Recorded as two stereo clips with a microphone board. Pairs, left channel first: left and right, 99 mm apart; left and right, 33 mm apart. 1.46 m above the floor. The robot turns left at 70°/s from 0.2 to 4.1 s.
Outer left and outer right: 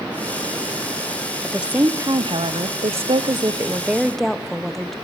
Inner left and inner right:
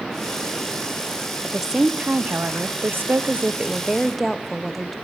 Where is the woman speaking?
Straight ahead, 0.8 m; by 4.9 s 175° left, 0.8 m.